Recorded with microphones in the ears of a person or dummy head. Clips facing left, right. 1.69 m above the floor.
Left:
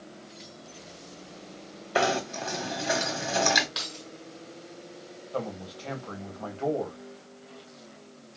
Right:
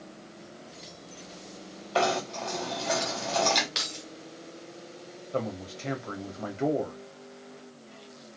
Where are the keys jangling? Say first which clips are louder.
Right 1 dB; 40° right (ahead or behind), 1.3 m.